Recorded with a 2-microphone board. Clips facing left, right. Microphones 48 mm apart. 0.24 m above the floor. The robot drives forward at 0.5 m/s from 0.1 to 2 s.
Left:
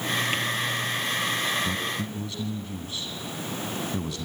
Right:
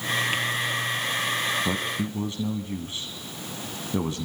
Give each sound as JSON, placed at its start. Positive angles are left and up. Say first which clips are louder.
{"t": 1.6, "sound": "a man speaking", "louder": "right 2 dB", "side_deg": -30, "distance_m": 1.5}